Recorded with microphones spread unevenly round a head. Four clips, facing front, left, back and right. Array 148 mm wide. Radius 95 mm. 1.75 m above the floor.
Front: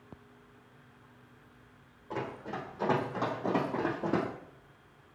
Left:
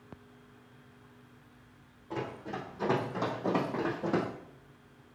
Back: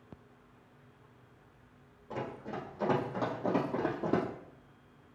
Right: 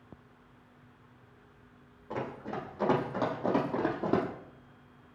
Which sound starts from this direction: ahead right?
Running footsteps, at 2.1 s.